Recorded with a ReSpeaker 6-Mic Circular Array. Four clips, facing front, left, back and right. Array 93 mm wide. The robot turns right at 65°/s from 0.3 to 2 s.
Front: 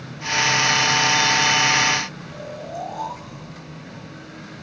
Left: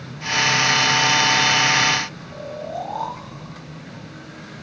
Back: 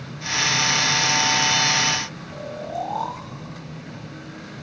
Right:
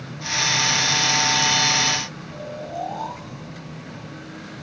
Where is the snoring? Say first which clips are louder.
Left 1 dB, back 4 dB; 140° left, 4 m.